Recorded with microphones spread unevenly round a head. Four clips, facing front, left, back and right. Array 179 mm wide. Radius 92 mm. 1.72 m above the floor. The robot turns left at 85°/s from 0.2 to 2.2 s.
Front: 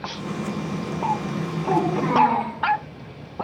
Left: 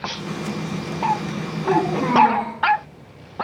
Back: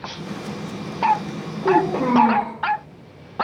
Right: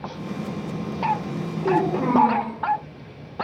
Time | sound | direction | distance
1.6 | a child speaking | 145° right | 4.5 m